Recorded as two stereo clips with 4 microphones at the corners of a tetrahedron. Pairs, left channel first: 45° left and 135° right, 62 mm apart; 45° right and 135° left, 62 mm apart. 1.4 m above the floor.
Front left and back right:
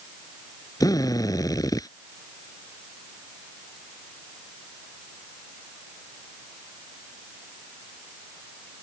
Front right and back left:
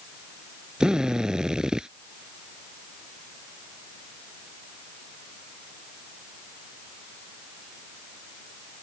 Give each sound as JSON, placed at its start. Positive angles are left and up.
{"t": 0.8, "sound": "a drill", "azimuth_deg": 55}